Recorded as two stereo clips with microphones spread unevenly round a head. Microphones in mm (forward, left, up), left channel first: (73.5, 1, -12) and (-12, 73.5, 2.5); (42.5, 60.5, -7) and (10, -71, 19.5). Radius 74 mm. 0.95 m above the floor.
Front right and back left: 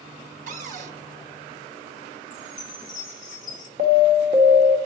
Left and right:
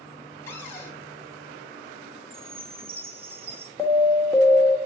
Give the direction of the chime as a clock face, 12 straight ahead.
2 o'clock.